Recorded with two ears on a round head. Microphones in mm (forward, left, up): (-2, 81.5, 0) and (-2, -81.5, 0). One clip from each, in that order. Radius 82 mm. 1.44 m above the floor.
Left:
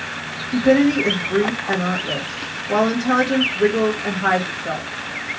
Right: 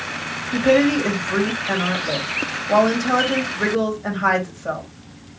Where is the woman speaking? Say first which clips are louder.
Even; 5° right (ahead or behind), 1.9 m.